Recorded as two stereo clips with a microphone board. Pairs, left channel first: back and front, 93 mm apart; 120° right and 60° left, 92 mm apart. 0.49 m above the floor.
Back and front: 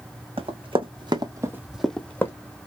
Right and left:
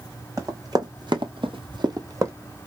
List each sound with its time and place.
0.4 s running footsteps: 5° left, 2.0 m; by 2.3 s 115° left, 1.4 m